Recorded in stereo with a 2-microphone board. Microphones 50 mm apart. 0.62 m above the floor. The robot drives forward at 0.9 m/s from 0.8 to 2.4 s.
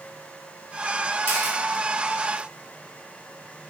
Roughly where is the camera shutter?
Right.